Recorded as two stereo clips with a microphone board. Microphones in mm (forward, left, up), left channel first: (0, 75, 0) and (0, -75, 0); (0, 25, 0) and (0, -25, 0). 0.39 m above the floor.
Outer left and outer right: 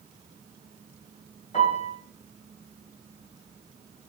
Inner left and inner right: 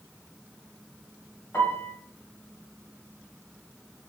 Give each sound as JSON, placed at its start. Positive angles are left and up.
{"t": 1.5, "sound": "a piano", "side_deg": 50, "distance_m": 1.6}